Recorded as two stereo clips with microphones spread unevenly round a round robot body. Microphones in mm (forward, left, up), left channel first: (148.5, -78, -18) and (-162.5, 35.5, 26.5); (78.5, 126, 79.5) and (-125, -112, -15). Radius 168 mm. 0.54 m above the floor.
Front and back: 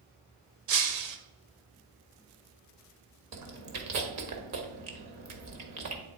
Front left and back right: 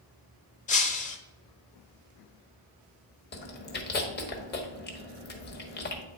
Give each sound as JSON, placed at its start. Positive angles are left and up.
{"t": 0.7, "sound": "breaking glass", "azimuth_deg": 120, "distance_m": 0.9}
{"t": 3.3, "sound": "chewing", "azimuth_deg": 115, "distance_m": 1.2}